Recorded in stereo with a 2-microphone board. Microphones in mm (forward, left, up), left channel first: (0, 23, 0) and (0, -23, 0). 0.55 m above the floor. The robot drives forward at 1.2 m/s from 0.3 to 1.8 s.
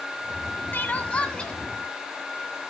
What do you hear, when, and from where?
0.7 s crying: 50° left (ahead or behind), 0.6 m; by 1.5 s 20° left (ahead or behind), 1.4 m